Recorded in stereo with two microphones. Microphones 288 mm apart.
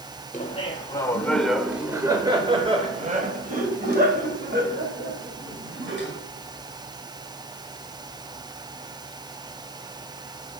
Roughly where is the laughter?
Left.